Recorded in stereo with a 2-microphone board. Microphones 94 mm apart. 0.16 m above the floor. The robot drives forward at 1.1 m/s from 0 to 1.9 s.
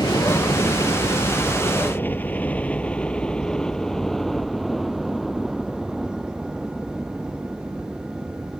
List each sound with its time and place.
0.0 s a helicopter: 40° left (ahead or behind); by 8.6 s 15° right (ahead or behind)